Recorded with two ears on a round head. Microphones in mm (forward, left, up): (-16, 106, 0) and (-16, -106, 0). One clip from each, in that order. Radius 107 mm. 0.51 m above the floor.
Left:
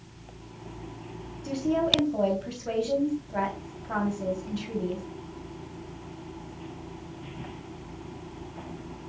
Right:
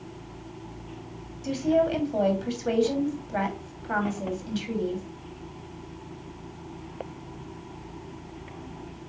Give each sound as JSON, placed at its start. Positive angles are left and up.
{"t": 1.4, "sound": "a woman speaking", "side_deg": -70, "distance_m": 3.0}